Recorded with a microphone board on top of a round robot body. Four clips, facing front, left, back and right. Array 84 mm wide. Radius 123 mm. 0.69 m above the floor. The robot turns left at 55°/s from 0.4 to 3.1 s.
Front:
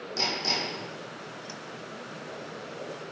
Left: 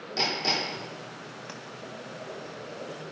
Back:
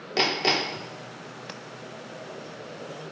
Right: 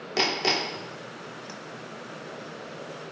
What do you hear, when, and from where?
0.2 s hammering: 140° right, 1.4 m; by 0.9 s 165° right, 1.4 m
1.5 s tapping: straight behind, 0.9 m; by 1.6 s 175° left, 0.9 m